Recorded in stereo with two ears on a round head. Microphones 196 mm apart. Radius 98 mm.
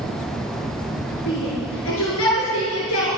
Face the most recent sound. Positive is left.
turn(degrees=80)